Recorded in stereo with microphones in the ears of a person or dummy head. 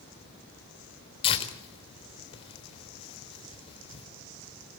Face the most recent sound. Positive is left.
turn(degrees=35)  # may be behind; listen again after turning